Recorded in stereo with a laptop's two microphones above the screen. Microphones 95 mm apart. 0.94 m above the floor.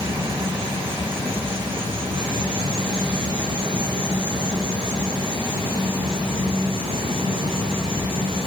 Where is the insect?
75° right (ahead or behind), 5.5 m.